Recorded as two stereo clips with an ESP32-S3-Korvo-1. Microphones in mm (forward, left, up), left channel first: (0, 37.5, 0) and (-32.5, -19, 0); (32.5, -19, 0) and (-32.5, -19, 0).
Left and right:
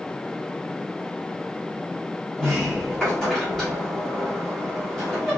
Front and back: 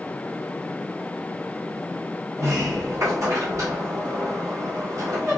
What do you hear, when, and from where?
2.4 s a sliding door: 140° left, 2 m